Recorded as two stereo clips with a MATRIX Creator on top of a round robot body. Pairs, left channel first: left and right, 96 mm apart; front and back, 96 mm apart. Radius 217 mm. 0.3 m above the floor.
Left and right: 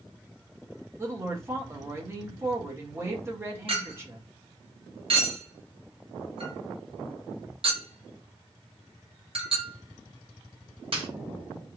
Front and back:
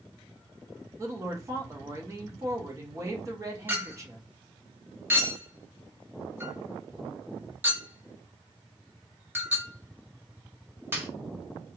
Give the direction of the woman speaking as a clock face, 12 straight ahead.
5 o'clock.